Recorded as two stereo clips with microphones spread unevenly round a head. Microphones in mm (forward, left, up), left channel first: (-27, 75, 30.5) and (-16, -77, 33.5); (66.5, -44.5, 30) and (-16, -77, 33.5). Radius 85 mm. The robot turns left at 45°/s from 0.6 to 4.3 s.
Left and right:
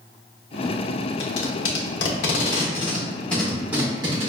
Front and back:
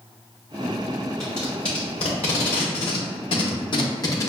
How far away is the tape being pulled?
About 0.7 m.